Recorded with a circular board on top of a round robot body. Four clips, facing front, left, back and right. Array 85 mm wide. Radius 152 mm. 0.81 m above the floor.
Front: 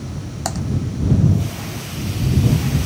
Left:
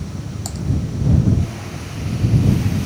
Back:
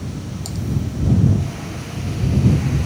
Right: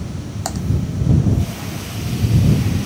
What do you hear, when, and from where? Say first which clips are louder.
0.5 s typing on a keyboard: right 8 dB, front 6 dB; 30° right